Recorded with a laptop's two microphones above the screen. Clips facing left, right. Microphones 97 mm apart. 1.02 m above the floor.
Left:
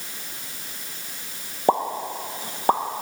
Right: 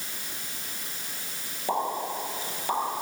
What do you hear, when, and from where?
1.7 s a pop: 50° left (ahead or behind), 0.9 m